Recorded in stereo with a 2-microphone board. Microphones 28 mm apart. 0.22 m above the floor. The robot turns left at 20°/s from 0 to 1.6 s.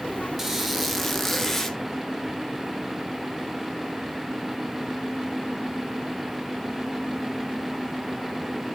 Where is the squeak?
15° right (ahead or behind), 1.0 m; by 1.8 s 10° left (ahead or behind), 1.0 m.